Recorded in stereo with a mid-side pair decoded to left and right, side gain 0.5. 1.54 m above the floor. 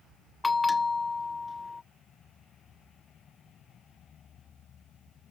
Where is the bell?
20° left.